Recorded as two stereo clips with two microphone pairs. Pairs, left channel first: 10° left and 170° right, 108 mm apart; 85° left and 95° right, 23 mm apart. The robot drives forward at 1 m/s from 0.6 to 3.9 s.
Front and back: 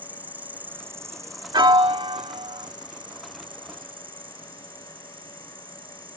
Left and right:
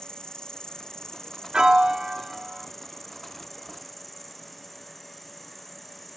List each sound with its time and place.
0.0 s an insect: 120° left; by 6.2 s 160° left
1.5 s a piano: 140° right; by 2.7 s 160° right